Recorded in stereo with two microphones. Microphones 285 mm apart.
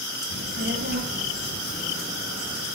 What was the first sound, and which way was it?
A child speaking, 40° right (ahead or behind).